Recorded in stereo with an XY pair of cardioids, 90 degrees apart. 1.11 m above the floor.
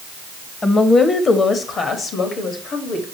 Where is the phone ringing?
No phone ringing in this recording.